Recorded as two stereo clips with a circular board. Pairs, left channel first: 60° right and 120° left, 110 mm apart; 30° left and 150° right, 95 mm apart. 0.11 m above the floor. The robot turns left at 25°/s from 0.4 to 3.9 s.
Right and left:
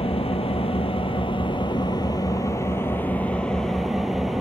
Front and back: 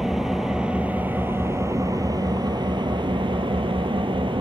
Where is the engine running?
65° right, 1.6 m; by 4.4 s 150° right, 1.6 m.